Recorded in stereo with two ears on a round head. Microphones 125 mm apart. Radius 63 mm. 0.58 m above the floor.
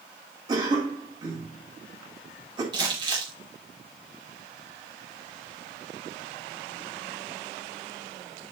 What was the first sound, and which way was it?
A cough, 30° right (ahead or behind).